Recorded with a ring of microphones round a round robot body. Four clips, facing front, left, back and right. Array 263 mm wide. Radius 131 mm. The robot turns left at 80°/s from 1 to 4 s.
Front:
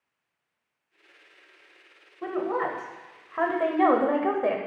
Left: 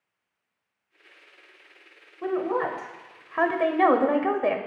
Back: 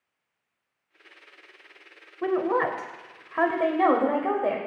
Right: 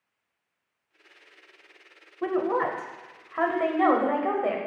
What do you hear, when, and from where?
2.2 s a woman speaking: 145° right, 0.9 m; by 4.6 s 75° left, 0.9 m